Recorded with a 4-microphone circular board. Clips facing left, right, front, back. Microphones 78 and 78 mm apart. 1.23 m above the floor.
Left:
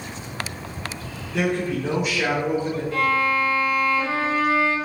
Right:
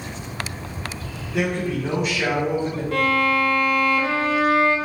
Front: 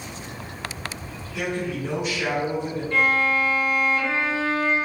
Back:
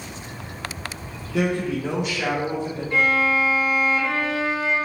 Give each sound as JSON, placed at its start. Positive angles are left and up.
{"t": 1.3, "sound": "a man speaking", "azimuth_deg": 180, "distance_m": 0.6}
{"t": 2.9, "sound": "a violin", "azimuth_deg": -100, "distance_m": 0.6}